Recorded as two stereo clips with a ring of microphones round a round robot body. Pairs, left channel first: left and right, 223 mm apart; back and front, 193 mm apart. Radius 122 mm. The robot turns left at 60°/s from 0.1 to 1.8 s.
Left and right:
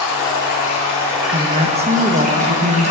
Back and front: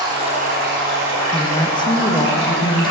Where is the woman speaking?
100° right, 0.6 m; by 2.9 s 130° right, 0.6 m.